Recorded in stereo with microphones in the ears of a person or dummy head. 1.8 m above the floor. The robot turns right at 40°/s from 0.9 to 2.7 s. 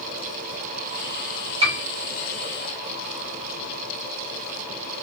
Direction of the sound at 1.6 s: 25° right (ahead or behind).